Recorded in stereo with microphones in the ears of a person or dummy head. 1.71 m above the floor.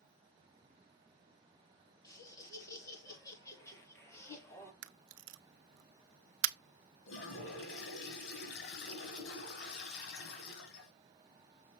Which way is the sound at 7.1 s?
60° left (ahead or behind).